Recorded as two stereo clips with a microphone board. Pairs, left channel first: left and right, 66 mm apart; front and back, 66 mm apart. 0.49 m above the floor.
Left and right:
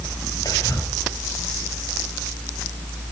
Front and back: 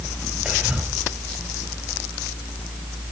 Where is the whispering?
110° left, 4 m.